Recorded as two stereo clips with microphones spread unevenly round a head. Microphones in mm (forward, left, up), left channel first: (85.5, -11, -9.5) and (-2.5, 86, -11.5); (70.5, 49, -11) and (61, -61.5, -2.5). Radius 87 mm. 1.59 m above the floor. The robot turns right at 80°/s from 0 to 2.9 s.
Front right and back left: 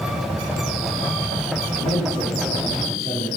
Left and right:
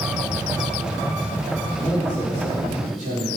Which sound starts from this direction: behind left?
A man speaking, at 1.7 s.